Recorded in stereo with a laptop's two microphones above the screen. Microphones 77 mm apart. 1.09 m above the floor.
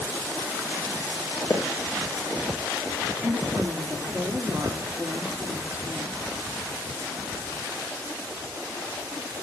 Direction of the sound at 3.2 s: 20° right (ahead or behind).